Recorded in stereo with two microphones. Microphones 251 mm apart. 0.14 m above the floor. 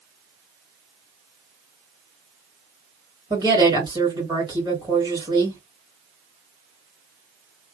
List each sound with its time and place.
3.3 s a woman speaking: 15° right (ahead or behind), 2 m